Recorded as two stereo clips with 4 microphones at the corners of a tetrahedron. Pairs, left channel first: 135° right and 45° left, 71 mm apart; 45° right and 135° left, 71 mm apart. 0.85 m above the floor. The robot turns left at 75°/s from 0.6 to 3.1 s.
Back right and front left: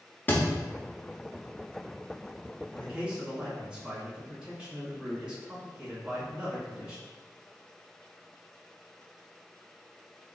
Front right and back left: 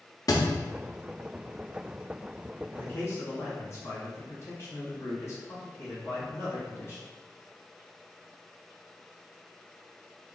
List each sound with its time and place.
0.3 s a thud: 75° right, 0.5 m
2.7 s a man speaking: straight ahead, 1.2 m; by 7.0 s 30° right, 1.2 m